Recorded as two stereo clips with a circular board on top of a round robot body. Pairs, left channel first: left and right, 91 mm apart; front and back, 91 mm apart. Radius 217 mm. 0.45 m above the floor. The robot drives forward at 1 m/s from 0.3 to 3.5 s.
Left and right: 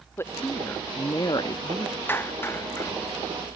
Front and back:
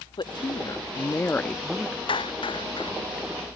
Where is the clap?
25° left; by 2.9 s 30° left.